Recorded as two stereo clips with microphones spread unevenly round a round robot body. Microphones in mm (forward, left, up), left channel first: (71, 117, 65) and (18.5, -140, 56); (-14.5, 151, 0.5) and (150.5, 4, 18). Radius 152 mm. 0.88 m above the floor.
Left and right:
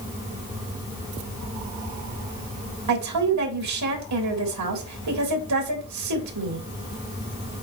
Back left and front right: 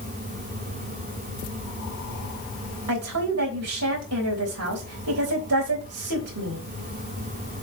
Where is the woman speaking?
85° right, 3.5 m.